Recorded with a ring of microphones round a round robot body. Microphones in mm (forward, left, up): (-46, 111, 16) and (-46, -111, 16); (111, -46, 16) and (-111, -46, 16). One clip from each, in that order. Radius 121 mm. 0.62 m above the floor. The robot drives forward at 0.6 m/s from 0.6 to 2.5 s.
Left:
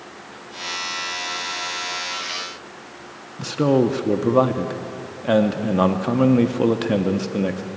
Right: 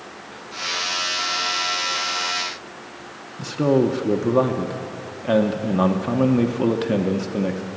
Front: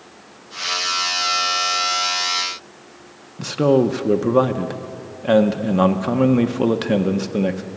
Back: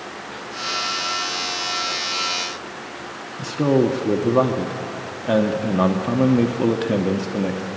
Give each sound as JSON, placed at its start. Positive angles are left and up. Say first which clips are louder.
{"t": 3.4, "sound": "a man speaking", "louder": "left 1 dB, front 3 dB", "azimuth_deg": 30, "distance_m": 0.8}